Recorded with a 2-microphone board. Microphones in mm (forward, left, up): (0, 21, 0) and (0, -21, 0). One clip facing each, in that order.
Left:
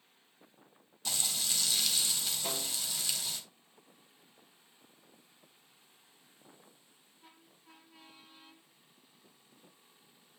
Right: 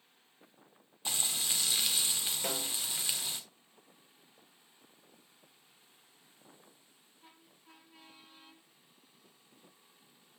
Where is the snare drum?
80° right, 6 m.